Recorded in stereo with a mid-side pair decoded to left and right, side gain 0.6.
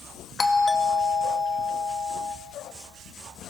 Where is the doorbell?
25° left, 2.0 m.